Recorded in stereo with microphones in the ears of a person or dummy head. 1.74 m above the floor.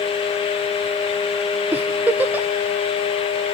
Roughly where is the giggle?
Centre.